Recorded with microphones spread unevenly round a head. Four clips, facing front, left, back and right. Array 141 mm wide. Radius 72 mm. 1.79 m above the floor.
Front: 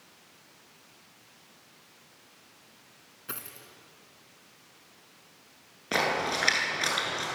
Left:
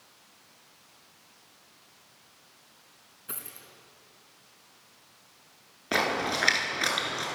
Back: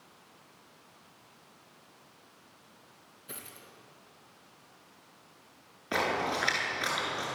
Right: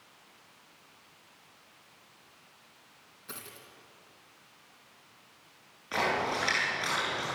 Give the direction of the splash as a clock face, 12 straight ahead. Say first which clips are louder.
Left 2 dB, front 2 dB; 10 o'clock.